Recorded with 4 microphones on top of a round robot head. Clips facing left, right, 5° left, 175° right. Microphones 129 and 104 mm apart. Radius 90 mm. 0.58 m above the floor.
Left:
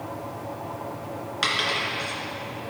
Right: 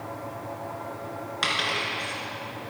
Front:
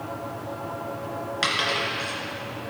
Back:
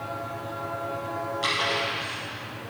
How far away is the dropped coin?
About 2.5 m.